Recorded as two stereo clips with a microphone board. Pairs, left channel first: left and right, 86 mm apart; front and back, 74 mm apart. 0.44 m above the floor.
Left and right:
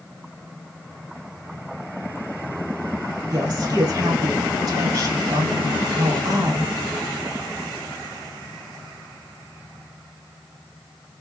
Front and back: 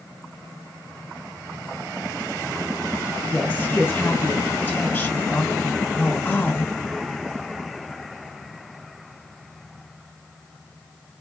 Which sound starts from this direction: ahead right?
A woman speaking, at 3.3 s.